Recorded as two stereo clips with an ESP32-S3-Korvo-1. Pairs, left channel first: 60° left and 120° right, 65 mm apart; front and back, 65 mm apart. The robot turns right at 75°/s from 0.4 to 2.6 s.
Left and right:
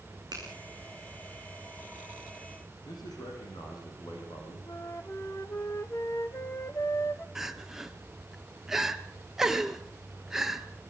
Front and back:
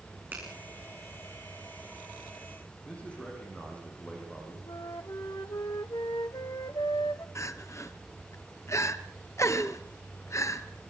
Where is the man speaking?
70° left, 8 m.